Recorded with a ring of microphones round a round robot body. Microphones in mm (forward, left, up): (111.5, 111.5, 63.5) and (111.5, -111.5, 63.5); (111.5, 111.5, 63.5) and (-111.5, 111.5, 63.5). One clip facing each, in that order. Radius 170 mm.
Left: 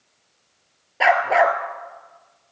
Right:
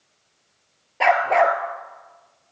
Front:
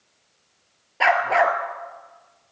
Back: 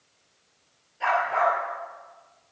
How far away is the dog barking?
About 2.5 m.